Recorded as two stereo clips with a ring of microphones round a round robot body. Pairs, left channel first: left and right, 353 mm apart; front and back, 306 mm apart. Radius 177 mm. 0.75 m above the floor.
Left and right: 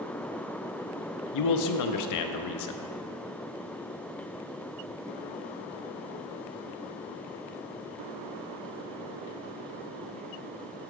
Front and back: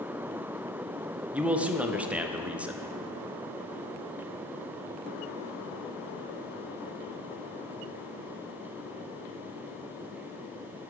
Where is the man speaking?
95° left, 0.6 m.